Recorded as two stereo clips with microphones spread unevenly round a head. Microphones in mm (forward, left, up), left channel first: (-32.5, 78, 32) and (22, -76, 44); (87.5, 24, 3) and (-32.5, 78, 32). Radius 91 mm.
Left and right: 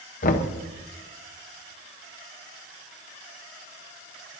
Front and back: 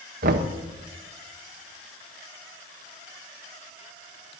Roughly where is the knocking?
Behind left.